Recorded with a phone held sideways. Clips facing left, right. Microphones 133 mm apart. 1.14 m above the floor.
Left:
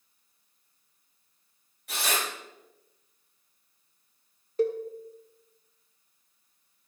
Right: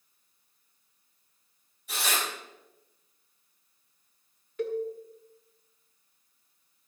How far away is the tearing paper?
About 6 m.